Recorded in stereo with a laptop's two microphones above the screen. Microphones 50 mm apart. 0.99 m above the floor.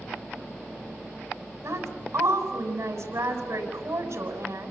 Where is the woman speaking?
55° right (ahead or behind), 7 m.